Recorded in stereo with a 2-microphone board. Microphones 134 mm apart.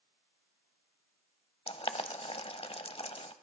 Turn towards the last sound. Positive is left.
turn(degrees=45)  # may be behind; listen again after turning